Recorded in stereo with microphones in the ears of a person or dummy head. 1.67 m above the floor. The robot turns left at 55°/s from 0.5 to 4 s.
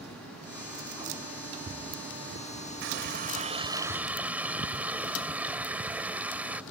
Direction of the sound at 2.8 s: 110° right.